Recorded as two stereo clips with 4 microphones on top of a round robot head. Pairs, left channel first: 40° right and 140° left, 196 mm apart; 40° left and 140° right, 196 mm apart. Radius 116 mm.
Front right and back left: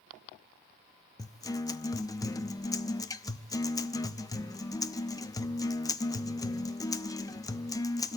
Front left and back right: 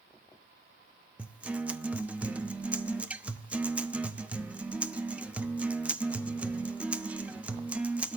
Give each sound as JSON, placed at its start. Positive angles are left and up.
{"t": 1.2, "sound": "a guitar", "azimuth_deg": -70, "distance_m": 0.9}